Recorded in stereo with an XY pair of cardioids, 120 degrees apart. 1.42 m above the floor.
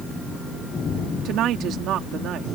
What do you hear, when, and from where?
1.2 s a woman speaking: 70° right